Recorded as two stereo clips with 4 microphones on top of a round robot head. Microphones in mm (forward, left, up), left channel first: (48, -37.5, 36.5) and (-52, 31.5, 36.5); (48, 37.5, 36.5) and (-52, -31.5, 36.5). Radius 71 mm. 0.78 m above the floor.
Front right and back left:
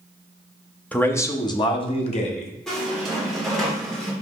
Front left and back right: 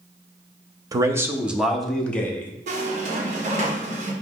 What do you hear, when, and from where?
0.9 s a man speaking: 105° right, 0.9 m; by 2.5 s 35° right, 1.4 m
2.7 s a squeak: 120° right, 2 m